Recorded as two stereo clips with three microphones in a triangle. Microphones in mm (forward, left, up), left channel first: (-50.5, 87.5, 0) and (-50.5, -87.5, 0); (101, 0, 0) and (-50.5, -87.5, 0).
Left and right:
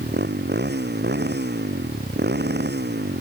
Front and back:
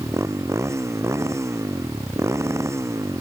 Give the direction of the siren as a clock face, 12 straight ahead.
No siren in this recording.